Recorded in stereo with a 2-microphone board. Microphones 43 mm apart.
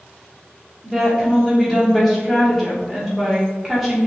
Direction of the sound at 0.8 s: Centre (ahead or behind).